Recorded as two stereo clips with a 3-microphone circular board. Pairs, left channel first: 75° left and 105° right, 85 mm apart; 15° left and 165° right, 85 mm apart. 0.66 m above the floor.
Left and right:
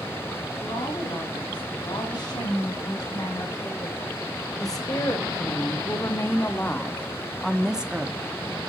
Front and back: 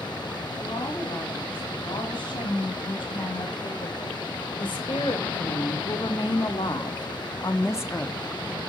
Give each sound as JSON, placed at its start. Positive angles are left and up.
{"t": 0.6, "sound": "a woman speaking", "azimuth_deg": 40, "distance_m": 7.0}